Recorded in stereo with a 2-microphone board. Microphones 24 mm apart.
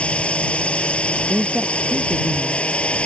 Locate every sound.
0.0 s a drone: 65° left (ahead or behind)
1.3 s a woman speaking: 80° right